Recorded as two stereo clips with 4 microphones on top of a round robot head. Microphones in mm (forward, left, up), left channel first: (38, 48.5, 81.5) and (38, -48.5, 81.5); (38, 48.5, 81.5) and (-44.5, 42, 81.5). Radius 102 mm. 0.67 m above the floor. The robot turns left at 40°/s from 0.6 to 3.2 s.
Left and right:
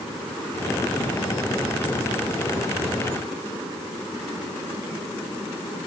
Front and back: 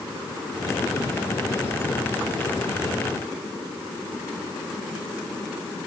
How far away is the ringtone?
I don't hear a ringtone.